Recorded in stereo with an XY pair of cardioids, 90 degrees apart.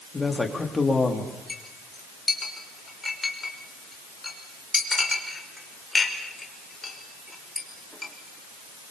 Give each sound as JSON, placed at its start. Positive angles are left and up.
{"t": 0.1, "sound": "a man speaking", "azimuth_deg": 25, "distance_m": 4.5}
{"t": 1.5, "sound": "a clink", "azimuth_deg": 20, "distance_m": 5.0}